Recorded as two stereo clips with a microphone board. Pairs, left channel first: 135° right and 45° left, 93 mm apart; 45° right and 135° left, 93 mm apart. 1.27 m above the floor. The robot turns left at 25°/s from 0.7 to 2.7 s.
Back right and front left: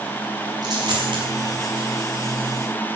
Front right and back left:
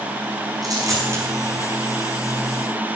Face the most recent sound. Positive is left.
turn(degrees=35)